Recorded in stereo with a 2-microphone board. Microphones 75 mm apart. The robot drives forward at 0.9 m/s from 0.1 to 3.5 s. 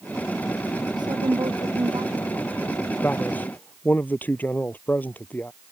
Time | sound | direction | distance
1.0 | a woman speaking | 75° right (ahead or behind) | ?
3.0 | a man speaking | 25° left (ahead or behind) | ?